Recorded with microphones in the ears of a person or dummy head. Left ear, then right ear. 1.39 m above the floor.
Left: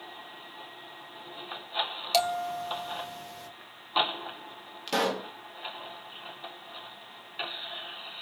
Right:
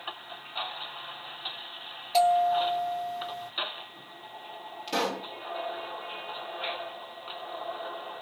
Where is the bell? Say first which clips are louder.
Right 6 dB; 75° left (ahead or behind), 2.5 m.